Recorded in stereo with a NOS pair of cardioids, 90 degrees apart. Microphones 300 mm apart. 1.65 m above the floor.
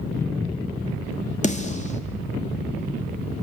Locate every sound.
1.4 s a snare drum: 25° left, 2.5 m